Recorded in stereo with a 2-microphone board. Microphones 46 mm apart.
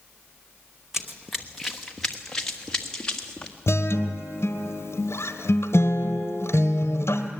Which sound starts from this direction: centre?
Running footsteps, at 0.9 s.